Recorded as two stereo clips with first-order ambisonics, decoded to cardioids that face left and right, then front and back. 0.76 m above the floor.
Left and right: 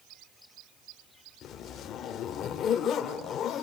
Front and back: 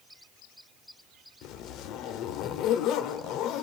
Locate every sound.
1.4 s a zipper: 35° left, 2 m